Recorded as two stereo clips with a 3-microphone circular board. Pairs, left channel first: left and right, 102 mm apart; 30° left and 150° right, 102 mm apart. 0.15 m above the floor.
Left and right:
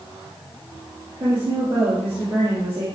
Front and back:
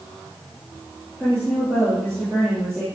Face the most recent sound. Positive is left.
turn(degrees=-60)